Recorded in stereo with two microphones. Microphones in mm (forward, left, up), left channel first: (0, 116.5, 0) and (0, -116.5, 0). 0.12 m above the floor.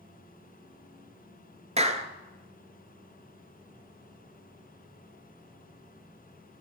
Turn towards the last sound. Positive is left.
turn(degrees=-30)  # may be behind; listen again after turning